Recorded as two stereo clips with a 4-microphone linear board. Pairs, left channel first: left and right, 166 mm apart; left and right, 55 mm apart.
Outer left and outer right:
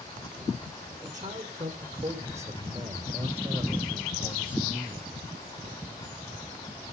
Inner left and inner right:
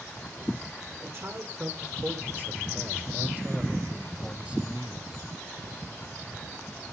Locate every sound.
1.0 s a man speaking: 50° right (ahead or behind), 8 m; by 5.1 s 20° right (ahead or behind), 3.5 m